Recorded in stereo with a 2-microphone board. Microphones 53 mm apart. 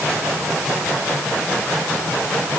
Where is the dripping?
I don't hear dripping.